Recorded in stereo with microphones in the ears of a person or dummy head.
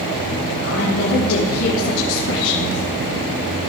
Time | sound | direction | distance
0.6 | a woman speaking | 70° left (ahead or behind) | 4.5 m